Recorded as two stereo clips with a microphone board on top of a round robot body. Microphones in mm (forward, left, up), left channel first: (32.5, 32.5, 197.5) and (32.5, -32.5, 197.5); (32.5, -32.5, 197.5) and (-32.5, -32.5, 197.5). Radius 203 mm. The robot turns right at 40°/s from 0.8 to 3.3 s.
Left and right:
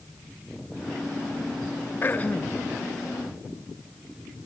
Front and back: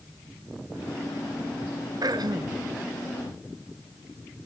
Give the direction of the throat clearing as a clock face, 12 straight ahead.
7 o'clock.